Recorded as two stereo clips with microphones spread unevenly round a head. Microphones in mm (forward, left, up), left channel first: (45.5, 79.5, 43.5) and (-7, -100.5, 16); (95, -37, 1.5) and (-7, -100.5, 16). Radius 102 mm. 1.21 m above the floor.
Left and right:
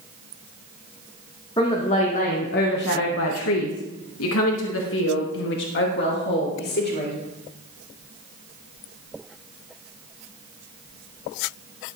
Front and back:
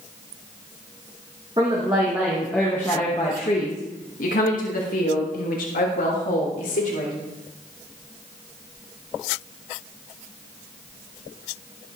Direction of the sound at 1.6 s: 140° left.